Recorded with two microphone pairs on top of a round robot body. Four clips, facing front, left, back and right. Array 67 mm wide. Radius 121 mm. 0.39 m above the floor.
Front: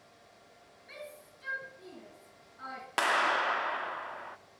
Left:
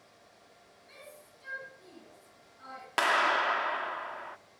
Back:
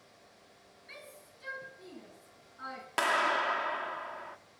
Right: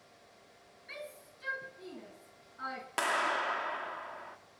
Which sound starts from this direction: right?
A shout, at 0.9 s.